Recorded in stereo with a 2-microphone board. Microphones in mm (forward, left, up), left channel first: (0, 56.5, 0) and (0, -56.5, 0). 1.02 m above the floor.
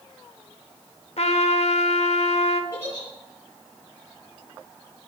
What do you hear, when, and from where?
1.2 s a trumpet: 70° left (ahead or behind), 1.0 m
2.7 s a giggle: 20° left (ahead or behind), 5.5 m